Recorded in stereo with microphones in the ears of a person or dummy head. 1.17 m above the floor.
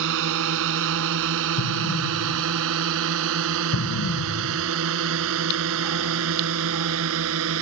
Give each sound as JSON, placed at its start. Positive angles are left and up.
{"t": 0.0, "sound": "a drone", "side_deg": -65}
{"t": 1.6, "sound": "an explosion", "side_deg": 85}